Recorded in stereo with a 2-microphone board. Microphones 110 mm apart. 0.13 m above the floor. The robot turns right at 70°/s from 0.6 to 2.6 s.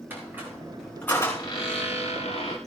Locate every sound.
0.1 s a squeak: 15° right, 6.5 m; by 2.6 s 120° left, 6.5 m